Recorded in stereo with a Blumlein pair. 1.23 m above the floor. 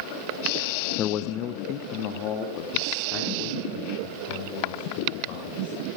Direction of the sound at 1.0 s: 30° left.